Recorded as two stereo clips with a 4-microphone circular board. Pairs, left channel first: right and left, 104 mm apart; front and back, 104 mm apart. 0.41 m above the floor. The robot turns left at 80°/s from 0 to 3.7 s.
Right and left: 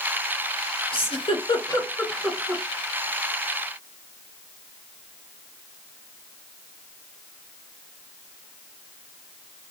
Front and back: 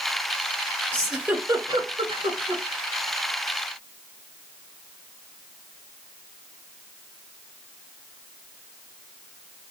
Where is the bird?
No bird in this recording.